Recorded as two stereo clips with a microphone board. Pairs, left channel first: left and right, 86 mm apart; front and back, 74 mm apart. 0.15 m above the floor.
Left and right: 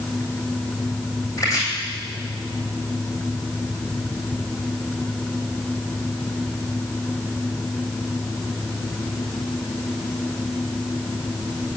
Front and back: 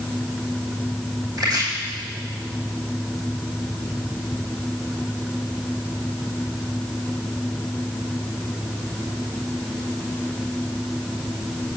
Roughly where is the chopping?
Behind left.